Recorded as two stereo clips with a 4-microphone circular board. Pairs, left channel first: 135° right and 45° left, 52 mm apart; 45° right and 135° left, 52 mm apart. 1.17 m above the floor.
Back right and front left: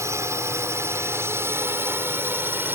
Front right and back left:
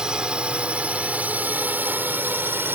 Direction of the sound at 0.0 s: 60° left.